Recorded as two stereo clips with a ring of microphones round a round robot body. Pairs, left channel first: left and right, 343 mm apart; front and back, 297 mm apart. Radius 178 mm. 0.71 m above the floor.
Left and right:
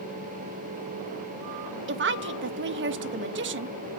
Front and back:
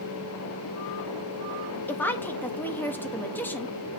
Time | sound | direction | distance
1.9 | a woman speaking | 80° right | 0.7 m